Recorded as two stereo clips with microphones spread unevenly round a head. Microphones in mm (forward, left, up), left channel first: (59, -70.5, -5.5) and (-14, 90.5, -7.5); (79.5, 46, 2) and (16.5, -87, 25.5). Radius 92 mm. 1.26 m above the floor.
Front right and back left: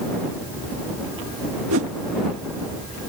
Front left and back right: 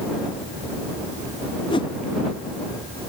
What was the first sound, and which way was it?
A whoosh, 125° left.